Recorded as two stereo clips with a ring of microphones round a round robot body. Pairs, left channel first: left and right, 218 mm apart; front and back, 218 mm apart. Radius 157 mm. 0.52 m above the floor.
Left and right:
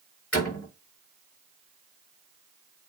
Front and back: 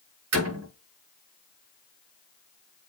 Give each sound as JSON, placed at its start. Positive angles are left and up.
{"t": 0.3, "sound": "a door slam", "azimuth_deg": 175, "distance_m": 5.0}